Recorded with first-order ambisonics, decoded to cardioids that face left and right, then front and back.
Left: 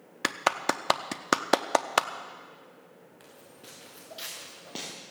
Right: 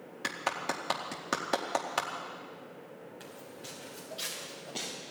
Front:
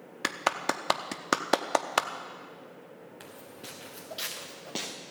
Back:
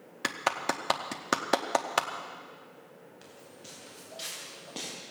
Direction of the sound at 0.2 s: 75° left.